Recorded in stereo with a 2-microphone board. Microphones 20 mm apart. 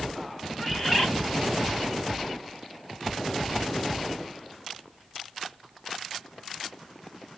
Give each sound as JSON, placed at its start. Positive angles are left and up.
{"t": 0.6, "sound": "a bird", "side_deg": 10, "distance_m": 0.7}